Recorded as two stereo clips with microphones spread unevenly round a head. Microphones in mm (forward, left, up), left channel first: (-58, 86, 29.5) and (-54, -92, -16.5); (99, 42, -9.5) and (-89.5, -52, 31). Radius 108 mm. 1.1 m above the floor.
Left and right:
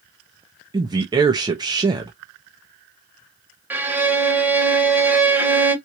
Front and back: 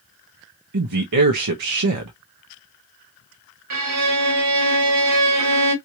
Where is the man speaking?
155° right, 0.9 m.